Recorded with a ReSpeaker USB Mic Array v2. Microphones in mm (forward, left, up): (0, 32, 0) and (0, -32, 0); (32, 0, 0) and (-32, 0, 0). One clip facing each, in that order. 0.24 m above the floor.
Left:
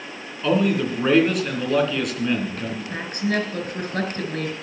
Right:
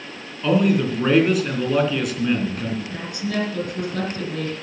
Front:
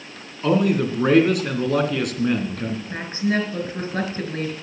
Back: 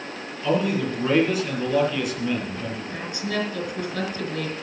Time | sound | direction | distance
0.4 | a man speaking | 5° right | 3 m
2.9 | a woman speaking | 50° left | 4 m